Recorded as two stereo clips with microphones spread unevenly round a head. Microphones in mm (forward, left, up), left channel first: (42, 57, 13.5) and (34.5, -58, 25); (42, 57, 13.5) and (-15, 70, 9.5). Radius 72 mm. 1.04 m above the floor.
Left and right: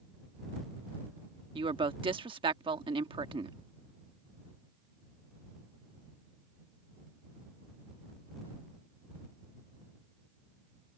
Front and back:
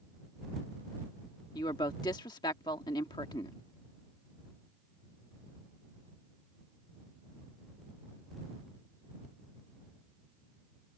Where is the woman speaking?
45° right.